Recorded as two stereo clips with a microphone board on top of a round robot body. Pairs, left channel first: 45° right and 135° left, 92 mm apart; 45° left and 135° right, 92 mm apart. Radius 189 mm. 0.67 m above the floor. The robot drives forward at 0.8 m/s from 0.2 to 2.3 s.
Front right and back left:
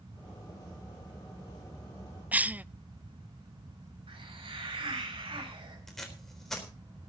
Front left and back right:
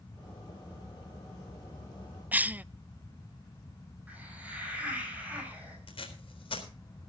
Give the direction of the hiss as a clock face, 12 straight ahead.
7 o'clock.